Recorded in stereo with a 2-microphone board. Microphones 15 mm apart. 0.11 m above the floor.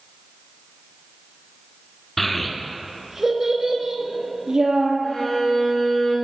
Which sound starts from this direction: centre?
A child speaking, at 2.2 s.